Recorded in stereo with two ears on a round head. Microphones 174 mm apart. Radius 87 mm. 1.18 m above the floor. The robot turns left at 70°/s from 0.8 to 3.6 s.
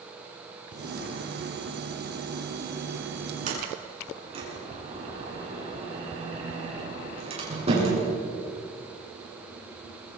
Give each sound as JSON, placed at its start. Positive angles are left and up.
{"t": 3.5, "sound": "a sliding door", "side_deg": -40, "distance_m": 8.5}